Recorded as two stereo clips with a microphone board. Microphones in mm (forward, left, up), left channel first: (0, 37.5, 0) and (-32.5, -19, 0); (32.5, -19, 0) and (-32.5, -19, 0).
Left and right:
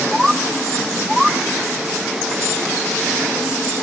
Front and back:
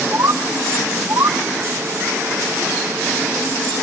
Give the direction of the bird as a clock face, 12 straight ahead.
7 o'clock.